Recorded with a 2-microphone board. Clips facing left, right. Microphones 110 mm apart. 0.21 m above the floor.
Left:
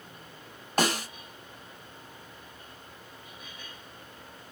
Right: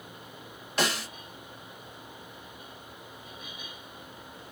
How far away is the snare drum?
About 1.1 m.